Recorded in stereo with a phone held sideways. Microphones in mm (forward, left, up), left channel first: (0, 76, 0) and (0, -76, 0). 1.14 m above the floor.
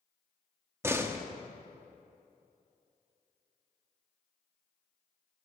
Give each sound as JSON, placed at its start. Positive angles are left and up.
{"t": 0.8, "sound": "a door slam", "side_deg": -15, "distance_m": 1.0}